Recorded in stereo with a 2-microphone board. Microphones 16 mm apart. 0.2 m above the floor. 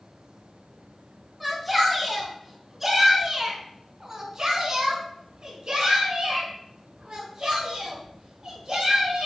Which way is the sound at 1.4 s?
5° left (ahead or behind).